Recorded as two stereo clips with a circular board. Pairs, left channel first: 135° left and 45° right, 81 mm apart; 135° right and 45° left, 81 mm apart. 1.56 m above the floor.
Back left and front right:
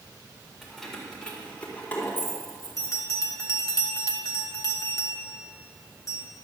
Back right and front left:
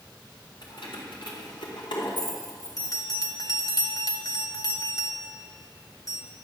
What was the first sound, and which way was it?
Keys jangling, 135° right.